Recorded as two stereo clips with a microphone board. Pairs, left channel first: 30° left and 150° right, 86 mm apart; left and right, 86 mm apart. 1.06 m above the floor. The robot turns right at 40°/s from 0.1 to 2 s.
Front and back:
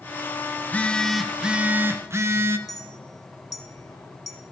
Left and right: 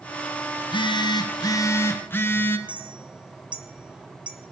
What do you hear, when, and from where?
0.6 s a phone buzzing: 95° left, 0.6 m; by 2.6 s 155° left, 0.6 m
2.7 s a clink: 15° right, 0.7 m